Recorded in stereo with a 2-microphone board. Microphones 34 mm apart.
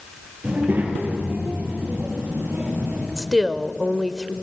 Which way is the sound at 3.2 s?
10° right (ahead or behind).